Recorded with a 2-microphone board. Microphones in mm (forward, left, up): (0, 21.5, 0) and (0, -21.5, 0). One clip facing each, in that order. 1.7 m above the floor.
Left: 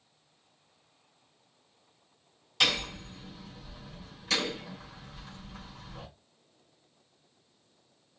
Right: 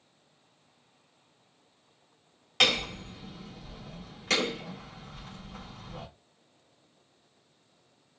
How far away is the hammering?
About 4 m.